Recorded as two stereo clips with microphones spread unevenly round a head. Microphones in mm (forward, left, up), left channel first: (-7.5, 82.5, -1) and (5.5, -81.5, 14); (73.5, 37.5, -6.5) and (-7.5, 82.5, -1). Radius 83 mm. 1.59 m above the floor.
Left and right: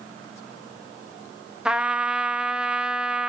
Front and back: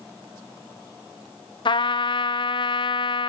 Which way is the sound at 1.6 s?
Straight ahead.